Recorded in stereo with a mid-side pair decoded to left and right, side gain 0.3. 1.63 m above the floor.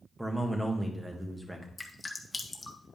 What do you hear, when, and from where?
0.2 s a man speaking: 15° right, 1.9 m
1.8 s dripping: 30° left, 1.2 m